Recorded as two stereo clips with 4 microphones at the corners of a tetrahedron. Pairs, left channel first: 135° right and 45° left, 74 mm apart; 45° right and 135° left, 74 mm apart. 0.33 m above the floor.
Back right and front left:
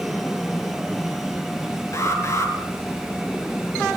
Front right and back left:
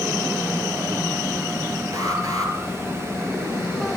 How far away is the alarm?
About 5.5 m.